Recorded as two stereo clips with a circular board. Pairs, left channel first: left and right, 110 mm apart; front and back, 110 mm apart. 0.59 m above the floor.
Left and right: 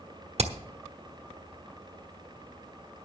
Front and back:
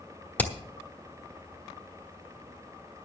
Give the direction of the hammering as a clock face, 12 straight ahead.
2 o'clock.